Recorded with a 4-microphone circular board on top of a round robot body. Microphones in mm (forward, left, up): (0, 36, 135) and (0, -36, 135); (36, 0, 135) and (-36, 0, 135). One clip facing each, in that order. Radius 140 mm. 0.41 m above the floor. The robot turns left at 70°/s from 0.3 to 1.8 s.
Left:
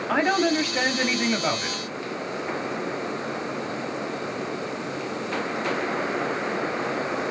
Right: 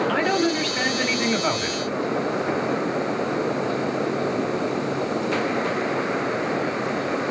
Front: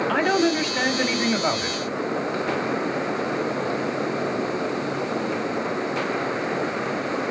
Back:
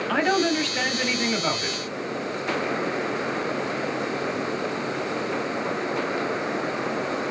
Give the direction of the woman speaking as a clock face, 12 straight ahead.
9 o'clock.